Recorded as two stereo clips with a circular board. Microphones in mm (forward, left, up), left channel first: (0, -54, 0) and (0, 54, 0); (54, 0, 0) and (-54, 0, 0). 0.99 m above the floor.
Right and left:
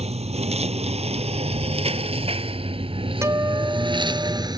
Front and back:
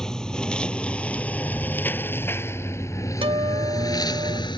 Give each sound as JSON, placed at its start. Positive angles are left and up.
{"t": 0.0, "sound": "a lawn mower", "azimuth_deg": 85}
{"t": 3.2, "sound": "a guitar", "azimuth_deg": 150}